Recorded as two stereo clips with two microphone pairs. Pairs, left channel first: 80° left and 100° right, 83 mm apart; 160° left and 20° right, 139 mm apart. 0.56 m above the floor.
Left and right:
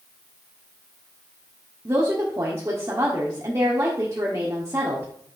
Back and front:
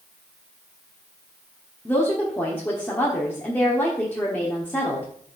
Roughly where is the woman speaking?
Behind right.